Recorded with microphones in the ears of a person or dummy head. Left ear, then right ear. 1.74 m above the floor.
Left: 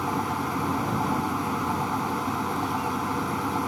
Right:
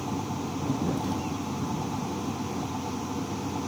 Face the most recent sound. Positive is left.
turn(degrees=55)  # may be behind; listen again after turning